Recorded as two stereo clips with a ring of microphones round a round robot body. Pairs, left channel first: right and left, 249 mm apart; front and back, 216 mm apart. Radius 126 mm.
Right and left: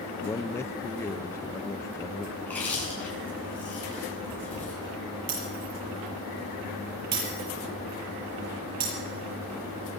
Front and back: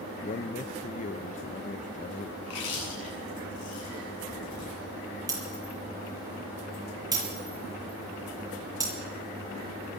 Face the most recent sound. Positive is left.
turn(degrees=110)